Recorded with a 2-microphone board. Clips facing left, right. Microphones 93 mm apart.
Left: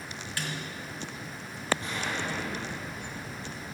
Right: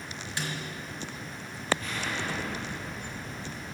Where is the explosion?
25° left (ahead or behind), 6.5 m.